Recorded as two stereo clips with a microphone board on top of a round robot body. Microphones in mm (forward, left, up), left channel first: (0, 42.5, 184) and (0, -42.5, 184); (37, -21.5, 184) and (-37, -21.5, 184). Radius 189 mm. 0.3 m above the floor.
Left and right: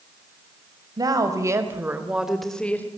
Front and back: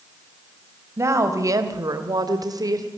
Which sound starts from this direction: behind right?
A woman speaking, at 1.0 s.